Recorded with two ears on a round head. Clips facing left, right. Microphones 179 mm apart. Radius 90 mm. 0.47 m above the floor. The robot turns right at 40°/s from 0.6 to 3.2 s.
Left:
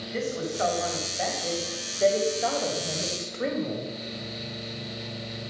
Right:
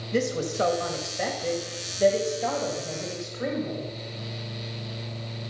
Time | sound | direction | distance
0.1 | a woman speaking | 65° right | 2.5 m